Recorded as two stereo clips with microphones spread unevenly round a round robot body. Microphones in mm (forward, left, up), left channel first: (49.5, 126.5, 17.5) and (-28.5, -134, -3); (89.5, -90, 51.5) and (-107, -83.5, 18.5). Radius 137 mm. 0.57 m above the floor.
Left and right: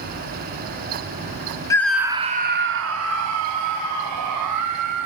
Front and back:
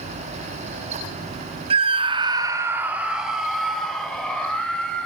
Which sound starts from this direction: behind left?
A scream, at 1.7 s.